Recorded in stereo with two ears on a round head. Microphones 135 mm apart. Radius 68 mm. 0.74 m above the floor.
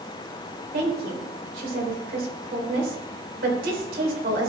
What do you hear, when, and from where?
0.7 s a woman speaking: 65° right (ahead or behind), 3 m